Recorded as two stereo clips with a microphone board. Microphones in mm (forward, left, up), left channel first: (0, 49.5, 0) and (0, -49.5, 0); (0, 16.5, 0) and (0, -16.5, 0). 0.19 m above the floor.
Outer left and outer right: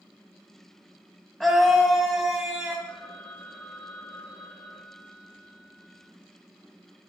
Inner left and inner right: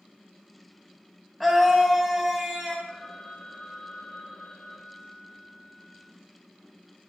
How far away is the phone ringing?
About 1.7 m.